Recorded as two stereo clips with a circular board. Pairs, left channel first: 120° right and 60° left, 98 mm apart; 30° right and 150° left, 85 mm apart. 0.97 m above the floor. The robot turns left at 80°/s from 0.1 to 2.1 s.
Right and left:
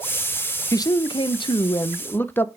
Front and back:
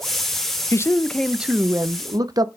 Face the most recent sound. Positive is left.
turn(degrees=175)